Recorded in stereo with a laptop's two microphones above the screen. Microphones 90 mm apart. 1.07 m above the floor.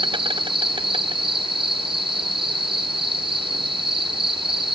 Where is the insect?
75° right (ahead or behind).